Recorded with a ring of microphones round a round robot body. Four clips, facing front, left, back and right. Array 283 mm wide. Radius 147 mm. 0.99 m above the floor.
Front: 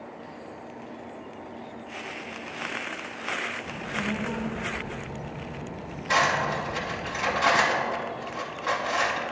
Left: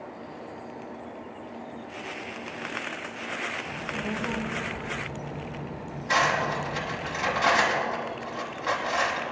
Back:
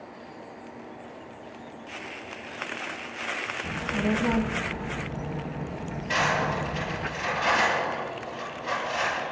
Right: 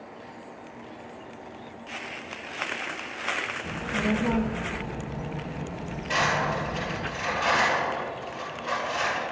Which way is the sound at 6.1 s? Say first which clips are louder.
Left 1 dB, front 2 dB; 50° left.